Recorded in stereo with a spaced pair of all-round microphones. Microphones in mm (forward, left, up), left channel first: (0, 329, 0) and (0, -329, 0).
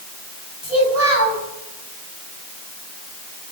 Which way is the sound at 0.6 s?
60° left (ahead or behind).